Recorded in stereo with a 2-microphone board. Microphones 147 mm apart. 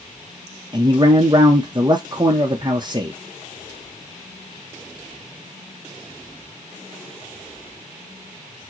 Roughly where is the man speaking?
Right.